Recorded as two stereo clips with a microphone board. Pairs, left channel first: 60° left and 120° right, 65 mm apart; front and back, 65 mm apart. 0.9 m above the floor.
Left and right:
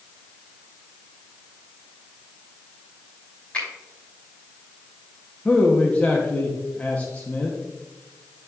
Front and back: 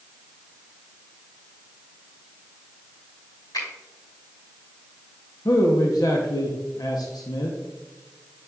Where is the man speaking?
5° right, 0.8 m.